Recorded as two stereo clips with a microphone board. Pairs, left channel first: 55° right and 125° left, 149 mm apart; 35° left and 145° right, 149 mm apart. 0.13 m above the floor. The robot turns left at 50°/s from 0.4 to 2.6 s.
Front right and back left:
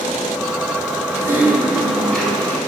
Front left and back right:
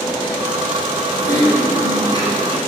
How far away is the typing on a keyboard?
About 1.5 m.